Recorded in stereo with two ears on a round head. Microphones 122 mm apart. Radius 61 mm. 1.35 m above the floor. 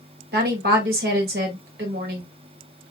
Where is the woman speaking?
85° right, 1.7 m.